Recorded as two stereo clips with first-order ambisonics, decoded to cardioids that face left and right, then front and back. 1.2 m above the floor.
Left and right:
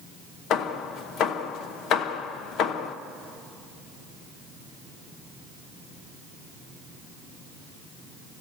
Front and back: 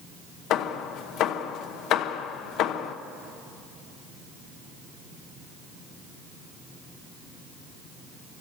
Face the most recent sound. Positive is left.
turn(degrees=40)